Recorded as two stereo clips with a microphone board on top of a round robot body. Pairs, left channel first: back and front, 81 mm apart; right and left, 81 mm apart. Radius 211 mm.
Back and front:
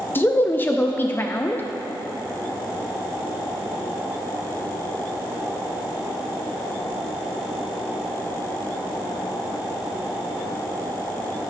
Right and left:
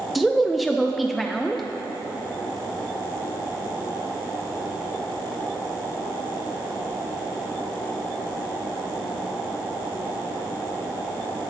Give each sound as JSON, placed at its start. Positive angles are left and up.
{"t": 0.1, "sound": "a woman speaking", "azimuth_deg": 175, "distance_m": 0.7}